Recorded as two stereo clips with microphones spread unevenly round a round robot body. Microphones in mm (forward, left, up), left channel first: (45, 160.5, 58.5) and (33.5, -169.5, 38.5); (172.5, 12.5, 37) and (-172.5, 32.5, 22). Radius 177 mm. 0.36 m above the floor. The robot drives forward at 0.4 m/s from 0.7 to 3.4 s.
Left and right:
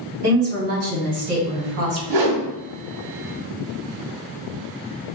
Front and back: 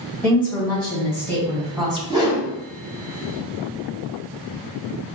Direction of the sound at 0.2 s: 90° right.